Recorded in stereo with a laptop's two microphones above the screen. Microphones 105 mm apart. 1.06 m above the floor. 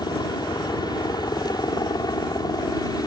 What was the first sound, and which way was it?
A helicopter, 40° left (ahead or behind).